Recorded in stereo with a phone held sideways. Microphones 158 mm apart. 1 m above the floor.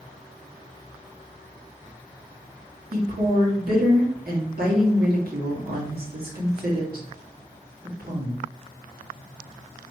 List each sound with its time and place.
2.9 s a woman speaking: 70° right (ahead or behind), 1.8 m